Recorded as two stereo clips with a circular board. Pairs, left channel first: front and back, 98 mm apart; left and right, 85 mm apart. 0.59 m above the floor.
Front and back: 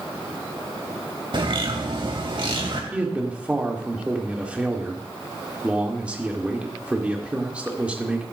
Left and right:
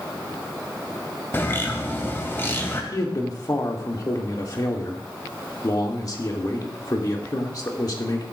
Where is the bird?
150° left, 2.5 m.